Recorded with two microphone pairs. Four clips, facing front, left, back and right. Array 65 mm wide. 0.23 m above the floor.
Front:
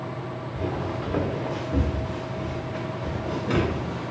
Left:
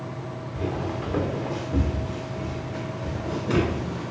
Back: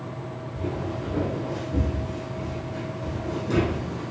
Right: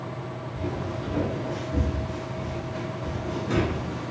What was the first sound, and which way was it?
Footsteps, 40° left.